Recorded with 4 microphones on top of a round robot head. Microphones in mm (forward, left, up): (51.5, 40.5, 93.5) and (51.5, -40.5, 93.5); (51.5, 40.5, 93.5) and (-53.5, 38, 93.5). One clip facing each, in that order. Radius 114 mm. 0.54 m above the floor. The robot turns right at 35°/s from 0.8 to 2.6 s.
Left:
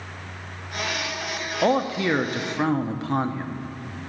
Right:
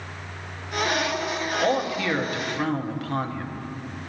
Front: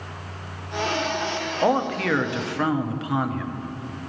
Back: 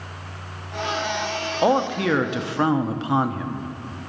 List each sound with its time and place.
1.6 s a man speaking: 105° left, 0.8 m; by 3.7 s 140° left, 0.8 m